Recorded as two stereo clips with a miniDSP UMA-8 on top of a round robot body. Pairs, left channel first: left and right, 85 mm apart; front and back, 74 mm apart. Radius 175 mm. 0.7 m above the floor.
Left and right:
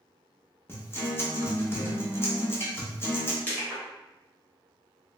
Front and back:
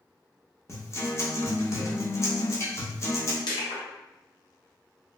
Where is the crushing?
20° left, 1.5 m.